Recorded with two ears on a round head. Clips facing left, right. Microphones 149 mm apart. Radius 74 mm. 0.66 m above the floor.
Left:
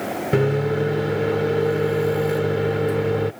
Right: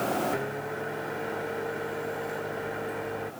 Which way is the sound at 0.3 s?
80° left.